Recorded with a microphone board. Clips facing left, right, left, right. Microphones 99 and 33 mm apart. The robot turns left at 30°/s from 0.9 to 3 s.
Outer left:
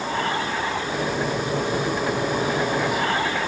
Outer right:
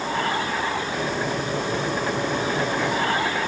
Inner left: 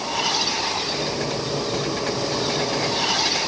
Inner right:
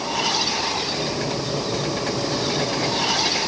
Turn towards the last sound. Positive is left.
No sound to turn to.